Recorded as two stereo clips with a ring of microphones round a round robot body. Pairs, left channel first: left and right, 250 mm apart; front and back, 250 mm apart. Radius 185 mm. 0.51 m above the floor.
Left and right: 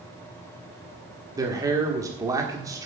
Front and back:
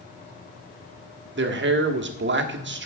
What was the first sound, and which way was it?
A man speaking, 165° right.